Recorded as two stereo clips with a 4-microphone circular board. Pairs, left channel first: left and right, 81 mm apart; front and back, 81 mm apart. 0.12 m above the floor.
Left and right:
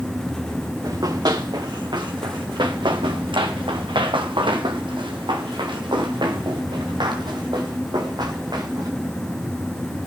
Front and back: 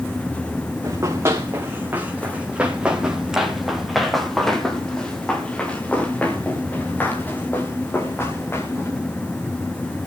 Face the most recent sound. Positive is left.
turn(degrees=-60)